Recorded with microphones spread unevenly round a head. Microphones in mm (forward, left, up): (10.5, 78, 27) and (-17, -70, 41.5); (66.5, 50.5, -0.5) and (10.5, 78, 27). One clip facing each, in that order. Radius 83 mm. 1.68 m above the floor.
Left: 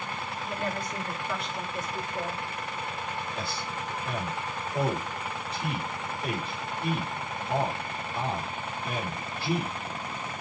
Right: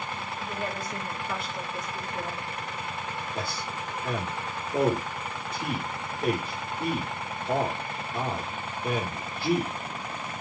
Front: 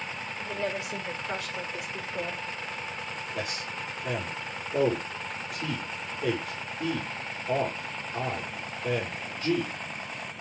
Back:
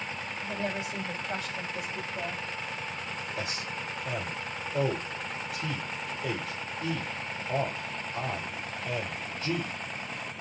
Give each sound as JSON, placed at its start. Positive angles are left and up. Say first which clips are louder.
{"t": 0.4, "sound": "a woman speaking", "louder": "left 1 dB, front 2 dB", "azimuth_deg": -25, "distance_m": 6.5}
{"t": 3.4, "sound": "a man speaking", "louder": "right 1 dB, front 3 dB", "azimuth_deg": -55, "distance_m": 5.5}